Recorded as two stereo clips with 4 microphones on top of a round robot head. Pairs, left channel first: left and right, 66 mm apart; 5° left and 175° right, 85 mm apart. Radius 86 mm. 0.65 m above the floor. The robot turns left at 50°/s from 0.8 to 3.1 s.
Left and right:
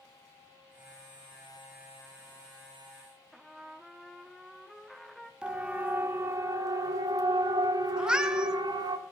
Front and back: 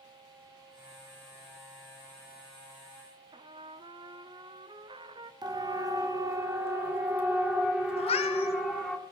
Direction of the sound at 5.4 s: 165° right.